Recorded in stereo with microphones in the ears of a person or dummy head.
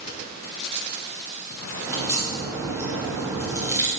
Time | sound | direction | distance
1.9 | a crack | 15° right (ahead or behind) | 2 m